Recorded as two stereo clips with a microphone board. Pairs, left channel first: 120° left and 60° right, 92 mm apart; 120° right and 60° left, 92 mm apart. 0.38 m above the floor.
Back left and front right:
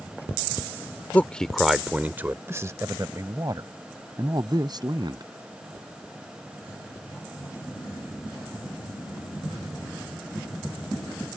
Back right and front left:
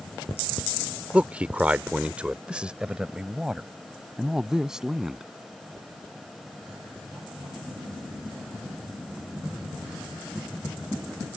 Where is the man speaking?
105° left; by 5.3 s 25° right.